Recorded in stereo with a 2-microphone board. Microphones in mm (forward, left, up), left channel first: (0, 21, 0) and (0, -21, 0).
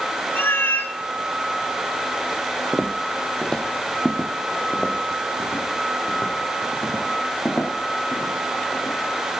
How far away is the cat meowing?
About 0.9 m.